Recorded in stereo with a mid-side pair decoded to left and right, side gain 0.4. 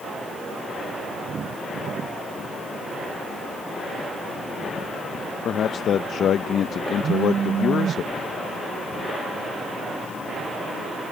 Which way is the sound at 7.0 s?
55° right.